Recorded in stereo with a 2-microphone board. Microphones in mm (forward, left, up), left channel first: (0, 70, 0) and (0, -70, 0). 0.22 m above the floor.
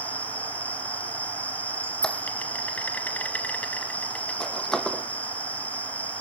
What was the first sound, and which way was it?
An insect, 10° left (ahead or behind).